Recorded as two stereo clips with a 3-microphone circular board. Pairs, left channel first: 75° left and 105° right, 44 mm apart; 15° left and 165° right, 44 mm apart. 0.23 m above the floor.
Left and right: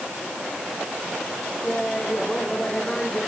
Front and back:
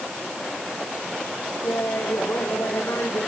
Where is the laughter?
Straight ahead; by 3.3 s 5° left.